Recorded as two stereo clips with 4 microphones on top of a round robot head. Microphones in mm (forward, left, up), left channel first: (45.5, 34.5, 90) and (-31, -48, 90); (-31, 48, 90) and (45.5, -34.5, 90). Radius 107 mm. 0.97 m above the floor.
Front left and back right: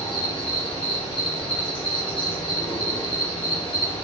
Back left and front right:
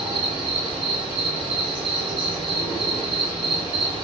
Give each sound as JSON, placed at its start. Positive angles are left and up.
{"t": 0.0, "sound": "an insect", "azimuth_deg": 0, "distance_m": 1.2}